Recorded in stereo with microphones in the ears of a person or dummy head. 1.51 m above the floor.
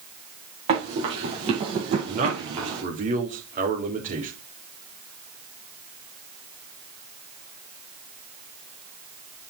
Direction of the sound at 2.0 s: 55° right (ahead or behind).